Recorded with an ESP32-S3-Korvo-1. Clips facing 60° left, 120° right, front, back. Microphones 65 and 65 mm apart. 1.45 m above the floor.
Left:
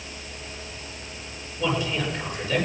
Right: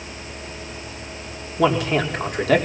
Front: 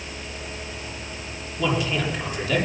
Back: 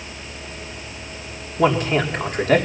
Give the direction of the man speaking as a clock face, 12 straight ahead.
5 o'clock.